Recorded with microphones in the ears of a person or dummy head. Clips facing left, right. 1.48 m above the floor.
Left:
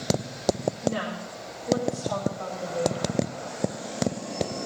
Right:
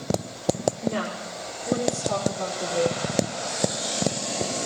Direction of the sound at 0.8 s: 65° right (ahead or behind).